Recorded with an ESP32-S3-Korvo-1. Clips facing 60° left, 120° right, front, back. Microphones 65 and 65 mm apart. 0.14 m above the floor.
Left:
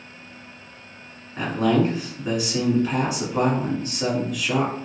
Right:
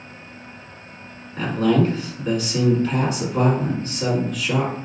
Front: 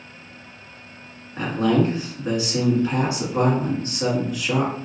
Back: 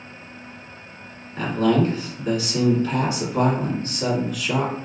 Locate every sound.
1.4 s a man speaking: straight ahead, 1.3 m